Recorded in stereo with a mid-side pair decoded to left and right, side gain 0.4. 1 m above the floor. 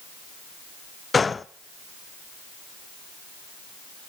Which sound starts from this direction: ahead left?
A gunshot, at 1.1 s.